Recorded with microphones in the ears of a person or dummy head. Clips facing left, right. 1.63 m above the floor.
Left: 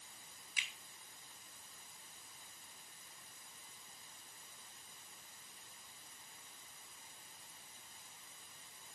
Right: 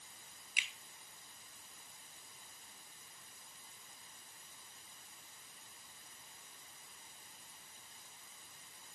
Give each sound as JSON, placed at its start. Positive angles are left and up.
{"t": 0.6, "sound": "a finger snap", "side_deg": -15, "distance_m": 3.0}